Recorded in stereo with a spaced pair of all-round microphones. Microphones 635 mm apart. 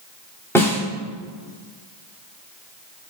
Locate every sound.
0.6 s a snare drum: 5° left (ahead or behind), 3 m